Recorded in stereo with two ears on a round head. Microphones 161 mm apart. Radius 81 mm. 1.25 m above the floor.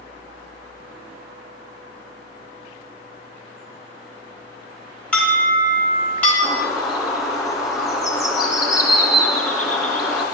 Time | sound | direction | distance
5.1 | an alarm | 10° left (ahead or behind) | 4 m
6.4 | a bird | centre (ahead or behind) | 2.0 m